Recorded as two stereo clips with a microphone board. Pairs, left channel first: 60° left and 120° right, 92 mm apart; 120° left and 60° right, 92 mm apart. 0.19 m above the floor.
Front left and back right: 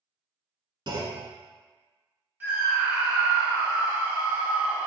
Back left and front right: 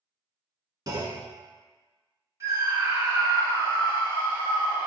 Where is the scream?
70° right, 1.1 m.